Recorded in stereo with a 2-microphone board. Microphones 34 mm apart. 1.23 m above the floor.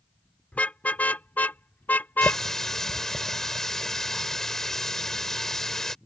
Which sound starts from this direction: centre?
A running tap, at 2.2 s.